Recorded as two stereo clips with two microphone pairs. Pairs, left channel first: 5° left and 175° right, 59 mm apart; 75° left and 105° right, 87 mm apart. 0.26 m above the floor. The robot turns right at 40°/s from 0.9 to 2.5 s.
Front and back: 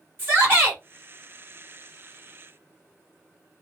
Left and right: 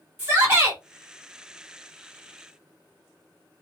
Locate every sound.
0.2 s a shout: 160° right, 1.5 m